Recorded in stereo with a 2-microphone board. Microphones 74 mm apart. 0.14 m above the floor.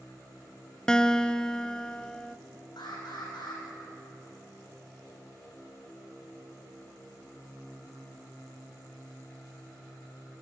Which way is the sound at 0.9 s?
10° left (ahead or behind).